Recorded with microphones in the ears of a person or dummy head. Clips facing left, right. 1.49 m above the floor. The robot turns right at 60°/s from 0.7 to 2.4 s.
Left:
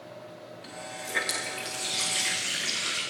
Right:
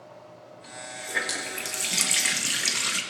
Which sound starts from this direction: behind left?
A running tap, at 0.6 s.